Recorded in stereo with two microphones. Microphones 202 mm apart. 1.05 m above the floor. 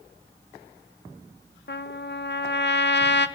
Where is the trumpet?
60° left (ahead or behind), 0.5 m.